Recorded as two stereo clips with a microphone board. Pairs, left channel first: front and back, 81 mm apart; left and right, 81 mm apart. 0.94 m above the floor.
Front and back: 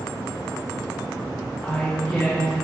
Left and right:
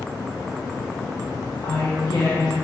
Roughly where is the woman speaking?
Left.